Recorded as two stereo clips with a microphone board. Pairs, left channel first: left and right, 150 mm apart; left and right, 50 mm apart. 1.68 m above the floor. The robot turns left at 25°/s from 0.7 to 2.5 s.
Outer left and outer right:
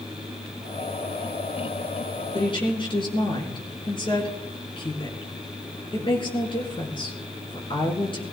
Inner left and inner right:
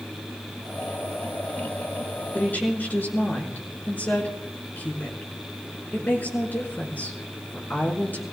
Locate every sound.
2.3 s a woman speaking: 40° left (ahead or behind), 4.5 m; by 8.2 s 35° left (ahead or behind), 4.5 m